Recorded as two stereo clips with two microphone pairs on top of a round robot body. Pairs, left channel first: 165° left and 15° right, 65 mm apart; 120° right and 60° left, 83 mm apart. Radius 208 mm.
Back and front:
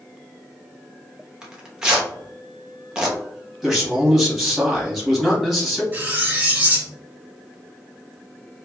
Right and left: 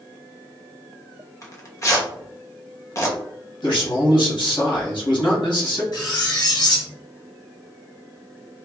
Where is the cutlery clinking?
85° right, 0.9 m.